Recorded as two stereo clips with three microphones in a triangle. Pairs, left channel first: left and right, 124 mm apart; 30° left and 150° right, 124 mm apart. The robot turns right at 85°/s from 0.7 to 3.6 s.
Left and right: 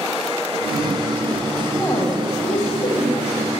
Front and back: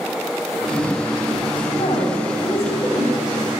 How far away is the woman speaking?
About 2 m.